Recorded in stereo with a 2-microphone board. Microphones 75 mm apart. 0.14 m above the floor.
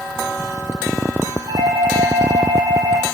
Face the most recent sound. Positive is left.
turn(degrees=-70)  # may be behind; listen again after turning